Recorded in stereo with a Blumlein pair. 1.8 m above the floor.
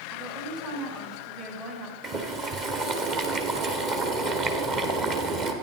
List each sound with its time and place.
0.1 s a woman speaking: 35° right, 4 m
2.0 s boiling: 30° right, 1.6 m